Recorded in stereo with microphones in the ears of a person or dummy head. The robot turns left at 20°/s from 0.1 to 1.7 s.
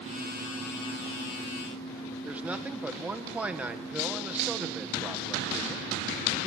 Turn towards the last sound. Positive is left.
turn(degrees=-5)  # may be behind; listen again after turning